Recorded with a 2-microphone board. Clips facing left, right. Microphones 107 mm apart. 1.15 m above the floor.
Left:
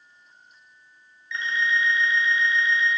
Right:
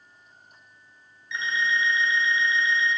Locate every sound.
1.3 s an alarm clock: 20° right (ahead or behind), 1.4 m